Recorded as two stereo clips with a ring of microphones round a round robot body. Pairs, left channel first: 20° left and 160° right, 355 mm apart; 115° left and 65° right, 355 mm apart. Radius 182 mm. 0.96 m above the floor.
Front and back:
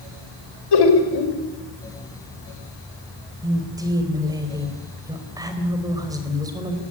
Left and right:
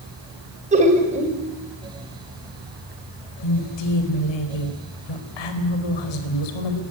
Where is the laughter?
5° left, 5 m.